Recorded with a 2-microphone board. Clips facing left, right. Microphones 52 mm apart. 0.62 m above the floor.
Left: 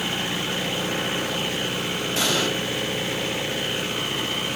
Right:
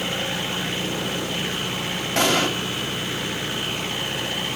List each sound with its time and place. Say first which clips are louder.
2.2 s an explosion: right 4 dB; 60° right (ahead or behind), 3 m